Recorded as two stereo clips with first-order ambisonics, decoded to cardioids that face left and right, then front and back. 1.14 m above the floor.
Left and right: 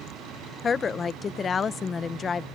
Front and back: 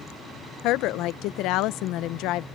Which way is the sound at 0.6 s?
25° left.